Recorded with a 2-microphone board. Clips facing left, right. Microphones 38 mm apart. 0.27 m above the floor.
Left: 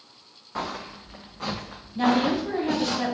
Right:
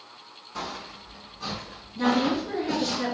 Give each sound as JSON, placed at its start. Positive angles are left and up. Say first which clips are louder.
{"t": 0.6, "sound": "footsteps", "louder": "left 3 dB", "side_deg": 35, "distance_m": 0.7}
{"t": 1.9, "sound": "a woman speaking", "louder": "left 2 dB", "side_deg": 45, "distance_m": 2.0}